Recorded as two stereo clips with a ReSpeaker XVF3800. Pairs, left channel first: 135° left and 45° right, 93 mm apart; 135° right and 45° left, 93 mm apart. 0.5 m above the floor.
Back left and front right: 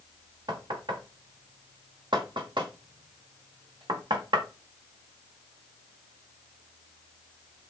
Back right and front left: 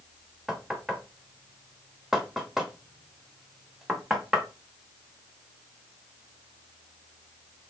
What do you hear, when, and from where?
0.5 s knocking: 40° right, 1.0 m